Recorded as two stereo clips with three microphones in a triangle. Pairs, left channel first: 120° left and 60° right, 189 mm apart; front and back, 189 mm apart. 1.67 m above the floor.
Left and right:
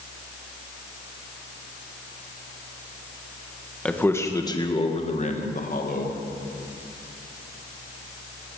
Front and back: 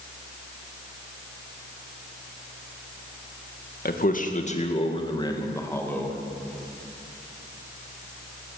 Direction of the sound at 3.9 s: 35° left.